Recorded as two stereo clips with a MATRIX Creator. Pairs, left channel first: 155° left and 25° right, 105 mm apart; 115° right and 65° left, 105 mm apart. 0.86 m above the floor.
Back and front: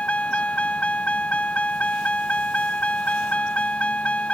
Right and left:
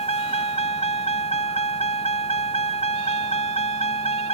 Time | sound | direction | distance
0.0 | a vehicle | 125° right | ?